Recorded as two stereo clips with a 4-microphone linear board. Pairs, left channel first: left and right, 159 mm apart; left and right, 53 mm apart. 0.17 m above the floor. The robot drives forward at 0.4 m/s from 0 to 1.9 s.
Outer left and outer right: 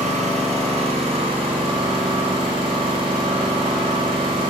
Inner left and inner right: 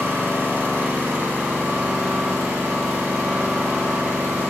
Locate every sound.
0.0 s an engine running: 50° right (ahead or behind), 1.4 m; by 4.5 s 35° right (ahead or behind), 1.9 m